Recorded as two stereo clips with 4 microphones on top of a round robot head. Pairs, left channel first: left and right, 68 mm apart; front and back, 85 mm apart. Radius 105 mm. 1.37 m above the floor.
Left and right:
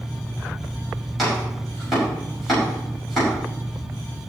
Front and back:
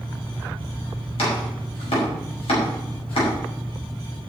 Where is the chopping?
Straight ahead, 5.5 m.